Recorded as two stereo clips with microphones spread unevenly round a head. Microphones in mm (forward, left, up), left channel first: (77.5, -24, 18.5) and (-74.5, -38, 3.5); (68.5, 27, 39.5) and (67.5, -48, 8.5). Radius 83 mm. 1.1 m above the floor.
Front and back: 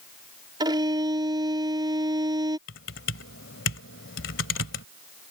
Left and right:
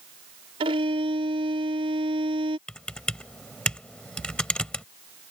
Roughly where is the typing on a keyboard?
Ahead.